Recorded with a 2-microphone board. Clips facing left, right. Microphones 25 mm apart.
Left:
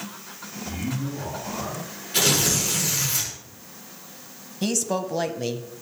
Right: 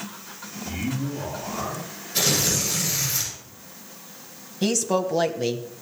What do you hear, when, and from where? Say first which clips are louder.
0.7 s a man speaking: right 1 dB; 5° right (ahead or behind), 4 m; by 1.9 s 15° right (ahead or behind), 5 m
2.1 s tearing paper: left 1 dB; 75° left (ahead or behind), 7 m
4.6 s a woman speaking: right 3 dB; 5° right (ahead or behind), 1.2 m